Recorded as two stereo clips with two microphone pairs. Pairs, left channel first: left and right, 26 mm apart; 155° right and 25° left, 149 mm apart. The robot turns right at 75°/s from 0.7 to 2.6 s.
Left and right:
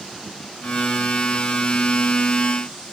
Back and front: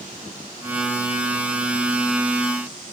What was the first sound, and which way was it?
Only background noise.